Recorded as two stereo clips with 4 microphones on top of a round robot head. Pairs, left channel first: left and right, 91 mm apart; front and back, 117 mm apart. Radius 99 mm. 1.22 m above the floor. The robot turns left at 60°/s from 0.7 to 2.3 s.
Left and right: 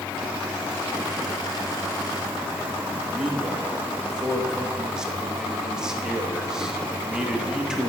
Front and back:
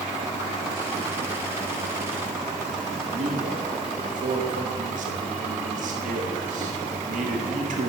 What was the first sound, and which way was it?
A man speaking, 175° right.